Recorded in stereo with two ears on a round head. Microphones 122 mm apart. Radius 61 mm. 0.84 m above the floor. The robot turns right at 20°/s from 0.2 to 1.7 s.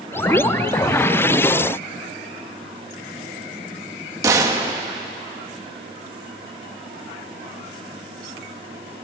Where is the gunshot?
25° right (ahead or behind), 1.4 m.